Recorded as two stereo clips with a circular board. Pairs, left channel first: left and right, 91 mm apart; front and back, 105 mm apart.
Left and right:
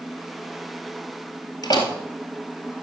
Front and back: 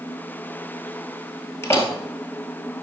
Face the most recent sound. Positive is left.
turn(degrees=60)